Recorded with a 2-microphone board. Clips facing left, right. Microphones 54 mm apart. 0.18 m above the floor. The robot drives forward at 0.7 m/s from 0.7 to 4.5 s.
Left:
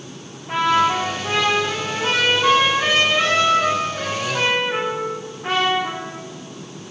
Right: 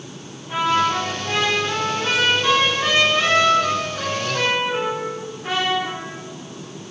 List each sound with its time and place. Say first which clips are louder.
0.5 s a trumpet: left 2 dB; 50° left (ahead or behind), 4.5 m; by 6.2 s 30° left (ahead or behind), 6.5 m